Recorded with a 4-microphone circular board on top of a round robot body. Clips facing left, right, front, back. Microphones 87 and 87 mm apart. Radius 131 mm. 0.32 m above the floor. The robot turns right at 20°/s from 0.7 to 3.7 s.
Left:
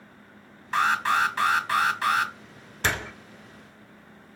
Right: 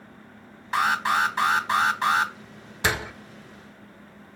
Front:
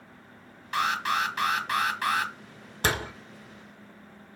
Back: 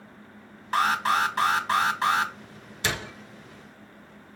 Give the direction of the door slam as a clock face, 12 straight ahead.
12 o'clock.